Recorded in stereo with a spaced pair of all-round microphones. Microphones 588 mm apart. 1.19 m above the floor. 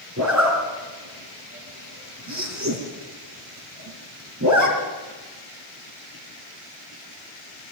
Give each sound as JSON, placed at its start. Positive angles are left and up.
{"t": 0.2, "sound": "a zipper", "side_deg": -30, "distance_m": 3.5}